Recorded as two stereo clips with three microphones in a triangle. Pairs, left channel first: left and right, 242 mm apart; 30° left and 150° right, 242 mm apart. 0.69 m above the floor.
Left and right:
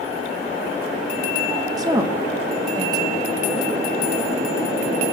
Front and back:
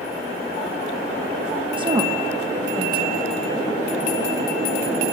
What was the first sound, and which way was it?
A woman speaking, 135° right.